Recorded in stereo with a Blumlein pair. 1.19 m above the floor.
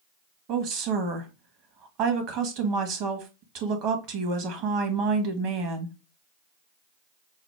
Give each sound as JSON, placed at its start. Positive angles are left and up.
{"t": 0.5, "sound": "a woman speaking", "azimuth_deg": -40, "distance_m": 1.3}